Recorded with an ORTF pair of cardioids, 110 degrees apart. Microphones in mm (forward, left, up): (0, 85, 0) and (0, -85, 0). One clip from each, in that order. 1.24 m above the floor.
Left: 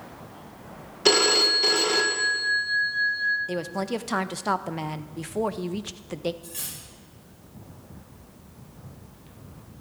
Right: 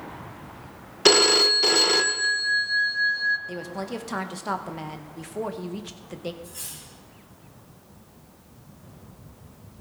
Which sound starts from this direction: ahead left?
Cutlery clinking, at 6.4 s.